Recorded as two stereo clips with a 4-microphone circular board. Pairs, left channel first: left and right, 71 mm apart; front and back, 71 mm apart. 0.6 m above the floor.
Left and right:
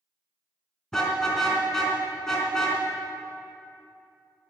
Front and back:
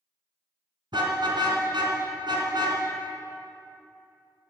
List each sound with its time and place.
0.9 s a car horn: 170° left, 3 m